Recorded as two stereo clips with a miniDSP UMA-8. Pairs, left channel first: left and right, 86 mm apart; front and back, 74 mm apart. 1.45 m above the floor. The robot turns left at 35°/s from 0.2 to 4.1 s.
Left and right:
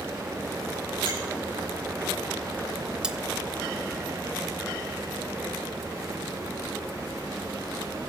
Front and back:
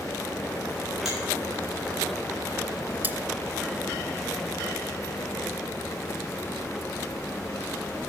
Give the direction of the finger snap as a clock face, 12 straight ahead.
3 o'clock.